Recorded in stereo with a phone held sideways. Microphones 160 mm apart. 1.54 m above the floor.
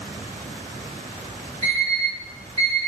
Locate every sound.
1.6 s an alarm clock: 50° right (ahead or behind), 1.3 m